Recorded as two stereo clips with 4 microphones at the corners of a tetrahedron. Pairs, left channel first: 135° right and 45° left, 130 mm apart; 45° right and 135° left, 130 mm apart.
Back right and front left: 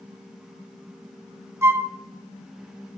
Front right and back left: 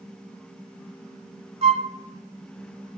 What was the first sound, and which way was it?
A flute, 115° left.